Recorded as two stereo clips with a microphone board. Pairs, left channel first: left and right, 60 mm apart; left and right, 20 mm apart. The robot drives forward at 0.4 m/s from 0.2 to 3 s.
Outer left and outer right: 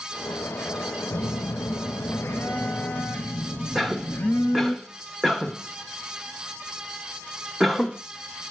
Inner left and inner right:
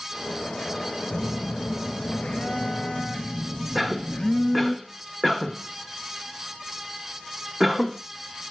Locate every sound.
1.1 s a phone buzzing: 65° left (ahead or behind), 0.6 m; by 4.8 s 30° left (ahead or behind), 1.0 m
3.8 s a cough: centre (ahead or behind), 0.8 m